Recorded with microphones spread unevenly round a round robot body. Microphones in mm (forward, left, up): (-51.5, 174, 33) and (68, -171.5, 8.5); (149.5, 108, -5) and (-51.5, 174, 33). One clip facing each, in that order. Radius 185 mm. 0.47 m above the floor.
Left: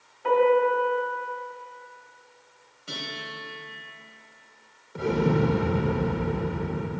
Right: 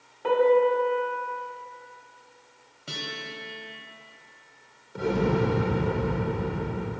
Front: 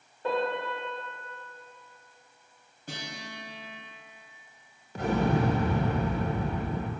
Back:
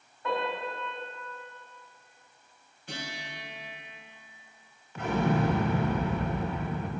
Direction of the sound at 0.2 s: 60° right.